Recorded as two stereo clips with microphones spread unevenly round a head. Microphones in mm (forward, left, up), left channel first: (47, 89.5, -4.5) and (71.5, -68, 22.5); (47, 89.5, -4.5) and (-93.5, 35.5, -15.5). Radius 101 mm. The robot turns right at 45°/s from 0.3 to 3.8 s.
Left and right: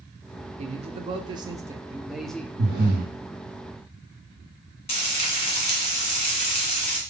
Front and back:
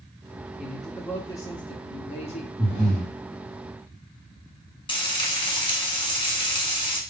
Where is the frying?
50° left, 1.5 m.